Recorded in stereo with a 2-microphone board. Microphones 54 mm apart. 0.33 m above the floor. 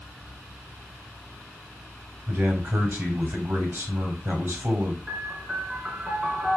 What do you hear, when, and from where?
2.3 s a man speaking: 45° right (ahead or behind), 1.5 m
5.1 s a piano: 20° right (ahead or behind), 1.3 m